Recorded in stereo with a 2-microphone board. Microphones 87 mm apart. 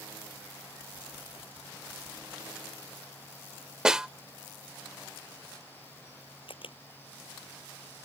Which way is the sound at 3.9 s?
10° right (ahead or behind).